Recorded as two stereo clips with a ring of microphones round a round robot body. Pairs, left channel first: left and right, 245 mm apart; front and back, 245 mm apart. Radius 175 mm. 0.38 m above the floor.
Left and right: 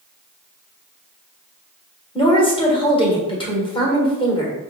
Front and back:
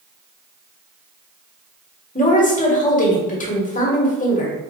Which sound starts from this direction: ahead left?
A woman speaking, at 2.1 s.